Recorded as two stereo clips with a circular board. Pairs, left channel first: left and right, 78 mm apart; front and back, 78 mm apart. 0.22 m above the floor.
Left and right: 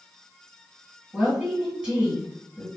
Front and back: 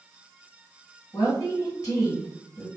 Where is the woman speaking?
15° right, 1.9 m.